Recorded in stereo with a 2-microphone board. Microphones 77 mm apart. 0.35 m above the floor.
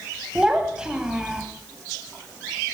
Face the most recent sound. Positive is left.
turn(degrees=-10)  # may be behind; listen again after turning